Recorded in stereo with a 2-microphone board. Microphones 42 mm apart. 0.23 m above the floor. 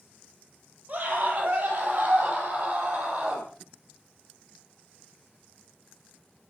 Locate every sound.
0.9 s a scream: 40° right (ahead or behind), 7 m; by 3.5 s 30° right (ahead or behind), 9 m